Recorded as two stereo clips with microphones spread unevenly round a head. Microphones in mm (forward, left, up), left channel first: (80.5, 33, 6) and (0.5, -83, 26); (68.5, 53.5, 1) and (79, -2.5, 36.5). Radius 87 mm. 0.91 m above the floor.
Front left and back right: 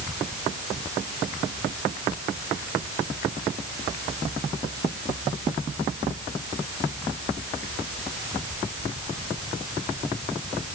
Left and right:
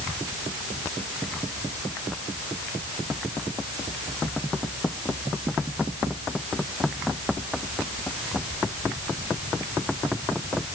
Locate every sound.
Only background noise.